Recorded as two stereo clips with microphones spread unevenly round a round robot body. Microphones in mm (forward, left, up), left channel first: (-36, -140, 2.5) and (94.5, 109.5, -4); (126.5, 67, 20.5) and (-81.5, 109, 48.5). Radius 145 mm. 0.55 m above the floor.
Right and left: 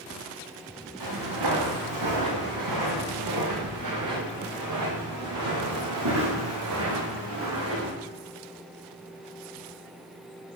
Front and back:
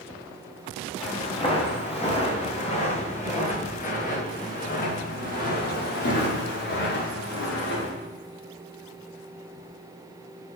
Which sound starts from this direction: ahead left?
Footsteps, at 1.0 s.